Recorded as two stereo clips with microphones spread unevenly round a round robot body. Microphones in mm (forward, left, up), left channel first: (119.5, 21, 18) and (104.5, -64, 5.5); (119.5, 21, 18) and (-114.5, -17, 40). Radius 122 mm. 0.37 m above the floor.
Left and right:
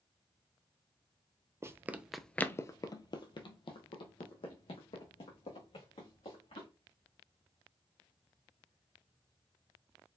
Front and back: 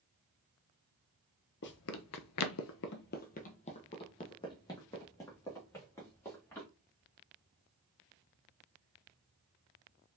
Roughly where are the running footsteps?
Ahead right.